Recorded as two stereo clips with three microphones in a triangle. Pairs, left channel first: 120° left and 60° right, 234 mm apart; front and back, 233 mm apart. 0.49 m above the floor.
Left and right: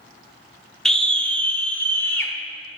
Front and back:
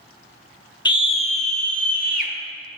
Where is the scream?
35° left, 0.8 m; by 2.3 s 40° left, 1.3 m.